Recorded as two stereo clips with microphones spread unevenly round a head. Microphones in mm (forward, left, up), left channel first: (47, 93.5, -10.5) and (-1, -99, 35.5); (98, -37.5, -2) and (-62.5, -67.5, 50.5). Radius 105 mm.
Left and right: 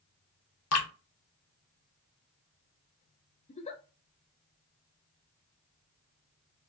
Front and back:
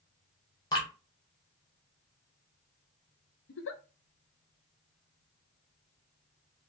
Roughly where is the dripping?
Left.